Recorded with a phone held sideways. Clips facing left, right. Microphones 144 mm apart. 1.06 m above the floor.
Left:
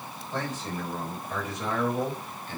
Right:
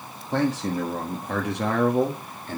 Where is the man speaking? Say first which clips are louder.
Right 10 dB; 75° right (ahead or behind), 1.6 m; by 2.6 s 45° right (ahead or behind), 1.7 m.